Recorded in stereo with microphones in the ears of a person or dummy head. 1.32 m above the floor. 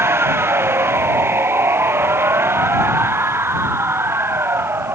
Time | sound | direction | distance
0.0 | a machine running | 10° right (ahead or behind) | ?